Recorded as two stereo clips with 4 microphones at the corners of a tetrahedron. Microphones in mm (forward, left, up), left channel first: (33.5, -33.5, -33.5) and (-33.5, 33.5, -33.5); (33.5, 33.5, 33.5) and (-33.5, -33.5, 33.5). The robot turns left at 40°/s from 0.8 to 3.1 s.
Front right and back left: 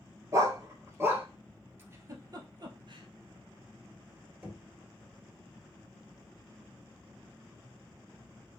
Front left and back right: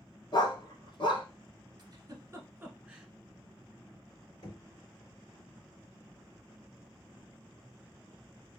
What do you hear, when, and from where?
0.3 s a dog barking: 80° left, 0.9 m; by 1.3 s 60° left, 0.9 m
1.8 s a giggle: 170° right, 0.9 m; by 3.1 s 140° left, 0.9 m
4.4 s knocking: 70° left, 2.5 m